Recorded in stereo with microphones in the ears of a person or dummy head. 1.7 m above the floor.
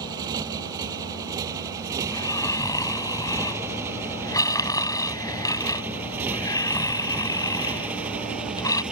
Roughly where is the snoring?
Centre.